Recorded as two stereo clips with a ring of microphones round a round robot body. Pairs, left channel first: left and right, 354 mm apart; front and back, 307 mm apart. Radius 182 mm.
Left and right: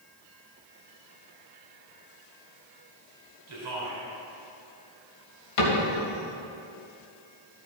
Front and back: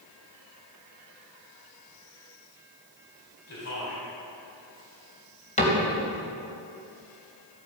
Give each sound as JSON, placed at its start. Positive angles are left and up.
{"t": 3.5, "sound": "a man speaking", "azimuth_deg": -50, "distance_m": 3.0}
{"t": 5.6, "sound": "a cupboard door", "azimuth_deg": 65, "distance_m": 2.5}